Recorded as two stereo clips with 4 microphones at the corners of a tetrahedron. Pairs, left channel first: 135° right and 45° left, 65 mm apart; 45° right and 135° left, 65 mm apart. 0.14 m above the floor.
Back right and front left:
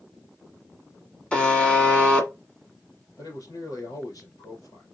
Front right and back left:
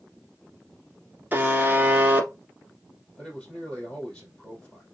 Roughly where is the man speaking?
Behind right.